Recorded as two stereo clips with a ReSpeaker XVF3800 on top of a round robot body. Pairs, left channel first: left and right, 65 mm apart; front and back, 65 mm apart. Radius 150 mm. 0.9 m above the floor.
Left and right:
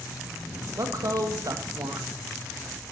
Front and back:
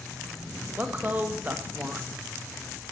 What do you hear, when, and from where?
0.8 s a woman speaking: 115° right, 1.3 m